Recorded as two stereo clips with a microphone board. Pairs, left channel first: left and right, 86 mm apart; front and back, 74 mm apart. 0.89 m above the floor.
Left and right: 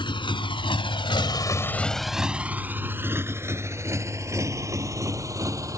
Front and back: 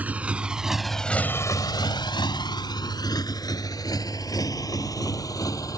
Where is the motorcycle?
110° left; by 5.8 s 40° right.